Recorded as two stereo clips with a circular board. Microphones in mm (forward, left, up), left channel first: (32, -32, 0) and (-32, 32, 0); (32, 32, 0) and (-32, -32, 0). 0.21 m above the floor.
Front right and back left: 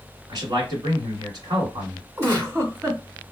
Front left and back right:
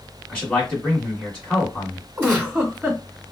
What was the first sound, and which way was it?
A man speaking, 130° left.